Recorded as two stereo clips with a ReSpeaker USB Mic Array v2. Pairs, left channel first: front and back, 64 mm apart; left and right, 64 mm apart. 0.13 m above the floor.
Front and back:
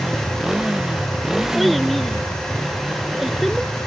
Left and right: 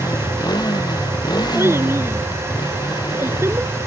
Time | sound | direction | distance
0.0 | a motorcycle | 95° left | ?
1.6 | a child speaking | 90° right | ?